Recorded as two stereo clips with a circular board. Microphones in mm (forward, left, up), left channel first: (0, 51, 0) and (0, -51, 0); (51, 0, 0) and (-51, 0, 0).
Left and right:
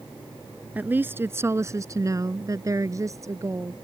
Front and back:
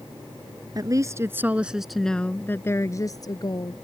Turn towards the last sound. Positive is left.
turn(degrees=-35)